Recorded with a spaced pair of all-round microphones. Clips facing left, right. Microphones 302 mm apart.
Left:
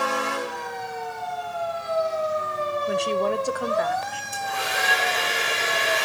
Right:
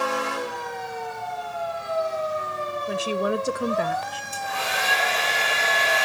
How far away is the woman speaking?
About 0.7 m.